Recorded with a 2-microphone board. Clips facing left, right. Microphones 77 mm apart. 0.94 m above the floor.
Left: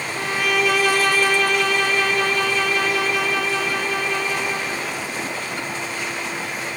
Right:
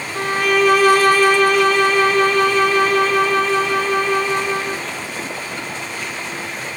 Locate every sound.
0.1 s a violin: 45° right (ahead or behind), 0.8 m